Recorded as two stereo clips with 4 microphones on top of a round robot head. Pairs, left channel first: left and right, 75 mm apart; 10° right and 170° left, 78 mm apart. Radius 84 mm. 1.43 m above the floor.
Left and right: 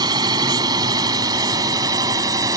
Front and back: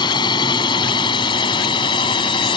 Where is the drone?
45° right; by 2.6 s 35° right.